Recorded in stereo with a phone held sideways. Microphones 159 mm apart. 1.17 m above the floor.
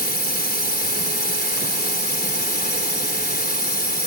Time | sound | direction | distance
0.0 | a drone | 75° left (ahead or behind) | ?